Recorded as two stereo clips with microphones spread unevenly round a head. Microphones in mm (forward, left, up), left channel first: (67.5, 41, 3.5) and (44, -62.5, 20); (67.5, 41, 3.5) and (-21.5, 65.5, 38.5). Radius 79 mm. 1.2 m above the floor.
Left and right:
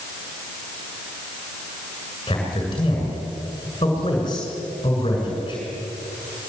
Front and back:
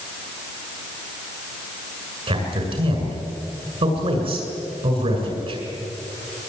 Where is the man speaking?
140° left, 7 m.